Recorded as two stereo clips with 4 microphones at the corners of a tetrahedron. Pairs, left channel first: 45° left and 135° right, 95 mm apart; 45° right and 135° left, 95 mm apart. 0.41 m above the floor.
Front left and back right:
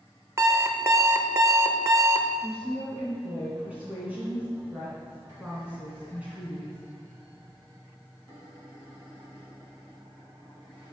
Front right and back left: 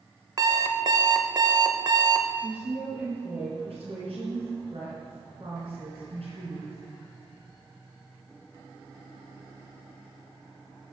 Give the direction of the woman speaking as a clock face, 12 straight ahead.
7 o'clock.